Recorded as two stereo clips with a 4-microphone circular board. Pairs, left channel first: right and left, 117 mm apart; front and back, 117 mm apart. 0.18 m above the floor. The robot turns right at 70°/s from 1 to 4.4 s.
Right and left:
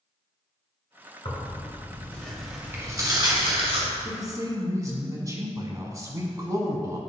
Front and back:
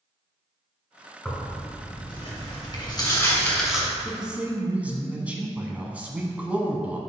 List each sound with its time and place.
1.2 s tearing paper: 80° right, 2.5 m; by 3.9 s 100° left, 2.5 m
4.0 s a man speaking: 90° left, 1.2 m; by 7.0 s 115° left, 1.2 m